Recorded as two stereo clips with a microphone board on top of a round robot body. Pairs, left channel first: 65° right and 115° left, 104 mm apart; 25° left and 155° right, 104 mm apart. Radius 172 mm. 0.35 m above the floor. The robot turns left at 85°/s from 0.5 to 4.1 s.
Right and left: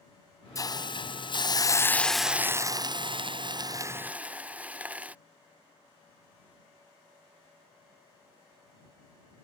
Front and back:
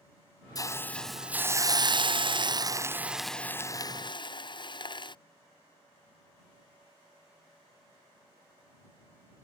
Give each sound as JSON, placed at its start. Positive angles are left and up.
{"t": 0.6, "sound": "a hiss", "azimuth_deg": -20}